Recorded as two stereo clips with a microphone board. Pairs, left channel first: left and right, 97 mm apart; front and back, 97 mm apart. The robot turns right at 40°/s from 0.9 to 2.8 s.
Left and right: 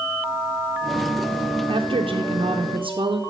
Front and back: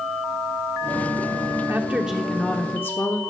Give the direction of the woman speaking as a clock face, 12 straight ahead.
4 o'clock.